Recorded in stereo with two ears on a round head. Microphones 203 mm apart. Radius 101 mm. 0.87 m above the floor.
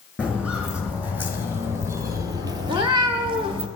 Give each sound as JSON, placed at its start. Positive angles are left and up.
{"t": 0.2, "sound": "footsteps", "side_deg": -5, "distance_m": 2.5}
{"t": 2.7, "sound": "a cat meowing", "side_deg": -20, "distance_m": 0.9}